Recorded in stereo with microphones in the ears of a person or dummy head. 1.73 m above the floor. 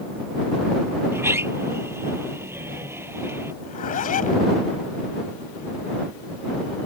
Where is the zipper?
45° left (ahead or behind).